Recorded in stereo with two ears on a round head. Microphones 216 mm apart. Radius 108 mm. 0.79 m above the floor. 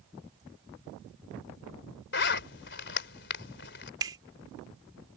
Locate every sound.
2.1 s a zipper: 50° left (ahead or behind)
4.0 s a finger snap: 15° right (ahead or behind)